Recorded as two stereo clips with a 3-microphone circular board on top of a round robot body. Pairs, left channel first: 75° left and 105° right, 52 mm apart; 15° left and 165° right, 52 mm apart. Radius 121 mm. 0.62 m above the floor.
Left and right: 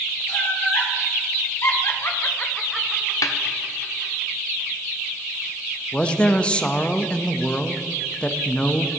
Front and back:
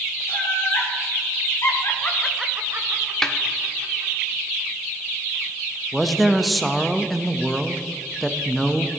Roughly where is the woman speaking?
Left.